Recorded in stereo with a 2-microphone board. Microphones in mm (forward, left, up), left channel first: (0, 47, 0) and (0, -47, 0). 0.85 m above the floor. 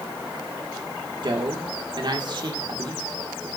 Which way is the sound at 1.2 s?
55° right (ahead or behind).